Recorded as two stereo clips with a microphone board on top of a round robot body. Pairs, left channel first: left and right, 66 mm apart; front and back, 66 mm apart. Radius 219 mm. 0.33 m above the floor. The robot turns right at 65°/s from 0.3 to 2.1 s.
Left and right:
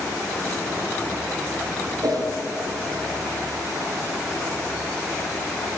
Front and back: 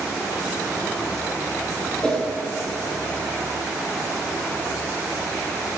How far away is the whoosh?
About 8 m.